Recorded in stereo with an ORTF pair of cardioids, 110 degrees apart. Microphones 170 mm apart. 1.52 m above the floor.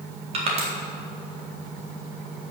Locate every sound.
0.3 s crushing: 40° right, 3.5 m